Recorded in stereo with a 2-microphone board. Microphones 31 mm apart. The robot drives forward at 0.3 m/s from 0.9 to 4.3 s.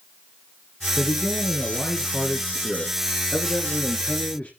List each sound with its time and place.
1.0 s a man speaking: 65° left (ahead or behind), 3 m